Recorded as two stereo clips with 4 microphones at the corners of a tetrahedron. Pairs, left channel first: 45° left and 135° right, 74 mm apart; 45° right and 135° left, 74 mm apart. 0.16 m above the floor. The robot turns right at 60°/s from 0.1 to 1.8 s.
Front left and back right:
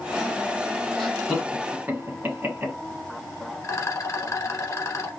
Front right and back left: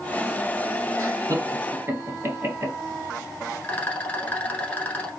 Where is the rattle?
20° left, 0.9 m.